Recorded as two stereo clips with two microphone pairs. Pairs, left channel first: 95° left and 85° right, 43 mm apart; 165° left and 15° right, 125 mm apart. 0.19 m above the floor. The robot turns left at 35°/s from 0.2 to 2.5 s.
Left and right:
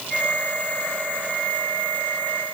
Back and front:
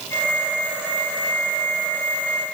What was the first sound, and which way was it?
Only background noise.